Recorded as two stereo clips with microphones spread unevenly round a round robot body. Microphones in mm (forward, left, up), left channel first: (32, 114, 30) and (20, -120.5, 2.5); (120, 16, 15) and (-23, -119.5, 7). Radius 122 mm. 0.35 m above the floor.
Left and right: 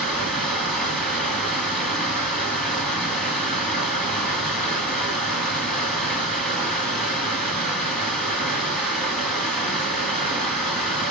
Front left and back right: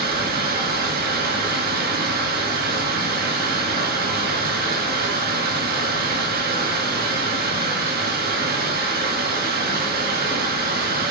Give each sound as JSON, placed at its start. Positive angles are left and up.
{"t": 0.0, "sound": "running water", "azimuth_deg": 175, "distance_m": 2.0}